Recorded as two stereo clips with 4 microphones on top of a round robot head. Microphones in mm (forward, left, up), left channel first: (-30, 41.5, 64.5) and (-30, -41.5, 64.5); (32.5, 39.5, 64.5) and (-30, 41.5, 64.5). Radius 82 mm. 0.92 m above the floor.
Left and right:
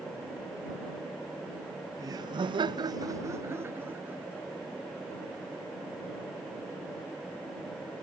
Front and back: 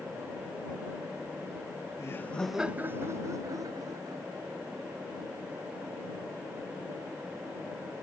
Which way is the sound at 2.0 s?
45° right.